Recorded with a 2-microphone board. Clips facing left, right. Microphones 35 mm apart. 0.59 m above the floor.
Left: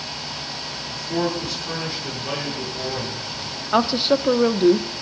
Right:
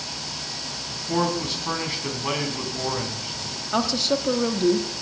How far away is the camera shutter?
No camera shutter in this recording.